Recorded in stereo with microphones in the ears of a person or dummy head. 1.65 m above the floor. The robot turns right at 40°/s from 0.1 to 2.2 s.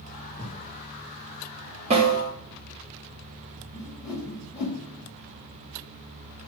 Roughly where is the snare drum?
Right.